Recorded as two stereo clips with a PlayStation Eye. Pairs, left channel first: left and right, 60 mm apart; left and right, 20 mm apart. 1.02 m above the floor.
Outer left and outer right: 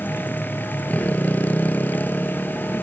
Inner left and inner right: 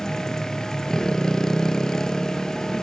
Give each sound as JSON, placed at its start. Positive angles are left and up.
{"t": 0.0, "sound": "a motorcycle", "side_deg": 25}